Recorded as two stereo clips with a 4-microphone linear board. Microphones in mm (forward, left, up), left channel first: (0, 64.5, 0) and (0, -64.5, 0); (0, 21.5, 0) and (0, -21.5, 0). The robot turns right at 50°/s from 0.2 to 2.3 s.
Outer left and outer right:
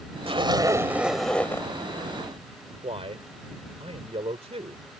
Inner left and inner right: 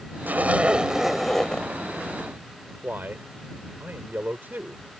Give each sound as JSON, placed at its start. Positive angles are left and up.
{"t": 0.3, "sound": "a zipper", "azimuth_deg": -45}
{"t": 2.8, "sound": "a man speaking", "side_deg": -50}